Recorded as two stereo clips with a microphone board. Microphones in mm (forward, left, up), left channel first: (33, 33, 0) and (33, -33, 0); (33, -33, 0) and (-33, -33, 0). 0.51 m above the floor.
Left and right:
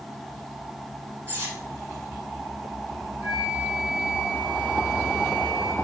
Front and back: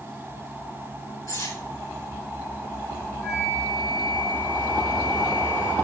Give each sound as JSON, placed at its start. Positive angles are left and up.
{"t": 1.3, "sound": "cutlery clinking", "azimuth_deg": -30, "distance_m": 3.5}
{"t": 3.2, "sound": "a flute", "azimuth_deg": 75, "distance_m": 4.5}